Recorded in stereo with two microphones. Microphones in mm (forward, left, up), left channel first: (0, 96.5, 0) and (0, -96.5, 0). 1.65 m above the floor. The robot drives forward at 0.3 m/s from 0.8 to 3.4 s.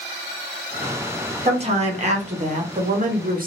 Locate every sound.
1.4 s a woman speaking: 30° right (ahead or behind), 1.1 m; by 3.5 s 45° right (ahead or behind), 0.8 m